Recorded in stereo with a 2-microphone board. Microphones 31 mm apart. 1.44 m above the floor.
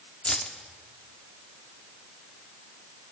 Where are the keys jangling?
40° left (ahead or behind), 2 m.